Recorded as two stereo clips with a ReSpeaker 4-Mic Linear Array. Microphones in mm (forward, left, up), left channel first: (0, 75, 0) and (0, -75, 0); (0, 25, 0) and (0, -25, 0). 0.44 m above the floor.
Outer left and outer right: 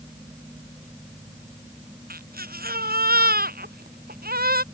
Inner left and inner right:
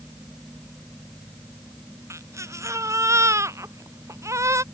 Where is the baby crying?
85° right.